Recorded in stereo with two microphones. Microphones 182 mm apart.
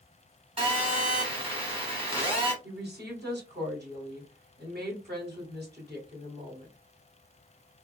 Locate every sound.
0.6 s a phone buzzing: 30° right (ahead or behind), 1.4 m
2.6 s a woman speaking: 65° right (ahead or behind), 2.5 m